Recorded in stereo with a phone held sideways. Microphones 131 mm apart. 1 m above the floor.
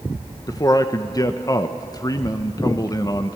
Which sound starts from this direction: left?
A man speaking, at 0.5 s.